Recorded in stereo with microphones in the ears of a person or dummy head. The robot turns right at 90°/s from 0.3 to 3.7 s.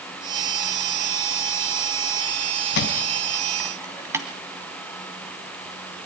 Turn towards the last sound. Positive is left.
turn(degrees=-10)  # may be behind; listen again after turning